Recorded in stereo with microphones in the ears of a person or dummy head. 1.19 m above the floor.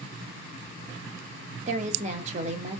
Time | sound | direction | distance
1.7 | a woman speaking | 40° right (ahead or behind) | 0.5 m